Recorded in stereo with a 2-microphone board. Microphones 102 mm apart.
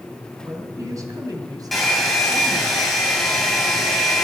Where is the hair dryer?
Centre (ahead or behind), 3 m.